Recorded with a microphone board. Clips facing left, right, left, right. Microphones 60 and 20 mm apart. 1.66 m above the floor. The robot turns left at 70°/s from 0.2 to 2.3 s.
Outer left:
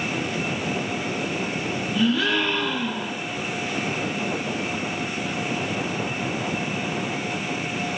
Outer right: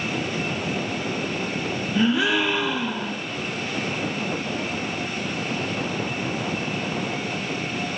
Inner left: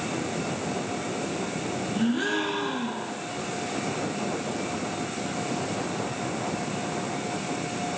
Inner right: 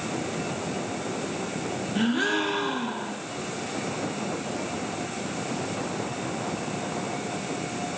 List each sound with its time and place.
1.9 s a gasp: 35° right (ahead or behind), 0.6 m; by 3.2 s 10° right (ahead or behind), 0.6 m